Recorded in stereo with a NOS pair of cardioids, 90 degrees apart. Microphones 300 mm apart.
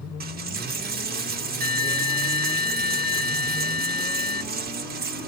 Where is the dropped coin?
30° right, 1.0 m.